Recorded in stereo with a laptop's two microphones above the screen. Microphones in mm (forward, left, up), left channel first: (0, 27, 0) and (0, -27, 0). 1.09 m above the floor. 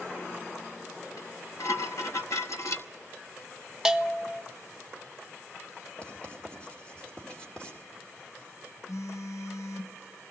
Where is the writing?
20° left (ahead or behind), 2.5 m.